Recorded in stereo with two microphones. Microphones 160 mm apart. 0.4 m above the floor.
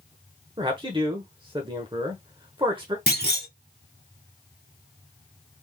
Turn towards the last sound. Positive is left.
turn(degrees=85)